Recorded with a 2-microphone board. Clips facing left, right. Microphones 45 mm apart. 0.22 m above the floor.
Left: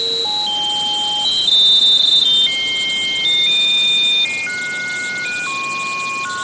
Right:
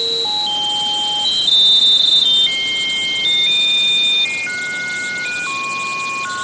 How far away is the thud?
I don't hear a thud.